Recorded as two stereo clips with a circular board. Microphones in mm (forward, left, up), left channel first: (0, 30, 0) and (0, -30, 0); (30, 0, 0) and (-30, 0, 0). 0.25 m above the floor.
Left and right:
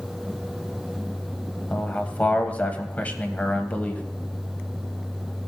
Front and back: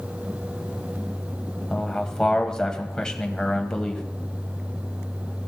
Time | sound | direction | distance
1.7 | a man speaking | 65° left | 1.3 m